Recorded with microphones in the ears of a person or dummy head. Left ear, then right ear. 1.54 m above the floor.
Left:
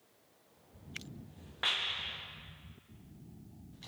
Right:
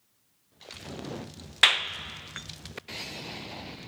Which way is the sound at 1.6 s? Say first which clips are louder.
Right 11 dB; 45° right (ahead or behind).